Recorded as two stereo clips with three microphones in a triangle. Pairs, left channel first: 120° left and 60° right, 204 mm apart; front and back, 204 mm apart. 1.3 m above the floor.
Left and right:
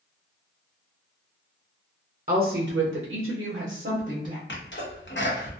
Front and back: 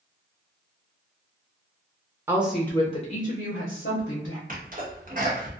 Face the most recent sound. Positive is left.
turn(degrees=140)